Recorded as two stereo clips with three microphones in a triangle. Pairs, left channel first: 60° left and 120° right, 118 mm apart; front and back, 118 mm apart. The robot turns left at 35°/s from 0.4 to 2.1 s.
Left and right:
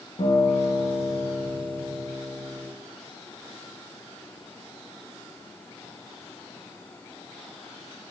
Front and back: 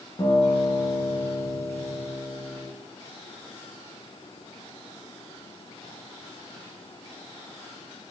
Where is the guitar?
50° left, 1.0 m; by 2.7 s 10° right, 1.0 m.